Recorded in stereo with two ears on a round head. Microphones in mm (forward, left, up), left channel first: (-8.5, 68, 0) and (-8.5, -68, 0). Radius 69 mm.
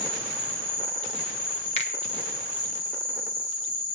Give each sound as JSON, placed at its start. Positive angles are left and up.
{"t": 0.0, "sound": "an insect", "side_deg": 35, "distance_m": 7.0}
{"t": 1.8, "sound": "a finger snap", "side_deg": 40, "distance_m": 1.4}